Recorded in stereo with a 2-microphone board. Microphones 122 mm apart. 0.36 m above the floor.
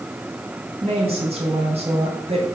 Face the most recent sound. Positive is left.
turn(degrees=-60)  # may be behind; listen again after turning